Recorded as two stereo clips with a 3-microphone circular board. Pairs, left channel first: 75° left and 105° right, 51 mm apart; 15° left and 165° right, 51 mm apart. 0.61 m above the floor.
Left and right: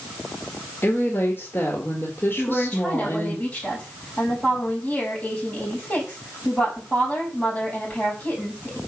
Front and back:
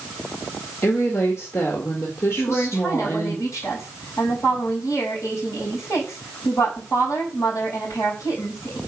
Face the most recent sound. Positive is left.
turn(degrees=10)